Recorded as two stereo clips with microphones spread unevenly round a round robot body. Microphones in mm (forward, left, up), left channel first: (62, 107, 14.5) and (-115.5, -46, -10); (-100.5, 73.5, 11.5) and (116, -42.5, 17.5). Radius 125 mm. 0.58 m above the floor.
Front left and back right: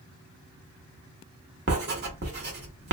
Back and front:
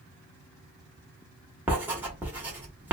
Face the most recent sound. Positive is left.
turn(degrees=-110)